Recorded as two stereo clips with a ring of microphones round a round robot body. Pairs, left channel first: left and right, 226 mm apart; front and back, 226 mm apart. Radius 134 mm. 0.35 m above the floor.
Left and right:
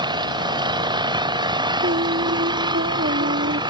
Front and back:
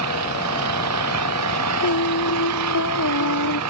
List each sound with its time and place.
0.0 s an engine running: 160° right
1.8 s singing: 30° right